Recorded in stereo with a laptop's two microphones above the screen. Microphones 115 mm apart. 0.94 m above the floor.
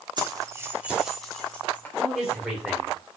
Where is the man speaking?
5° right (ahead or behind), 2.5 m.